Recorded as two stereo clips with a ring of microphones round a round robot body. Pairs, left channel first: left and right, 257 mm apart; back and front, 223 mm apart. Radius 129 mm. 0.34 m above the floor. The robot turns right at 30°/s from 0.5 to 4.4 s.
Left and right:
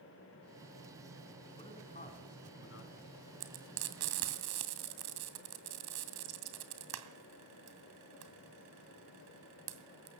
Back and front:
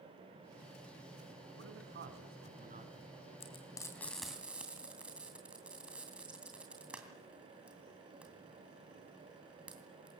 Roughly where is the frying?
Behind right.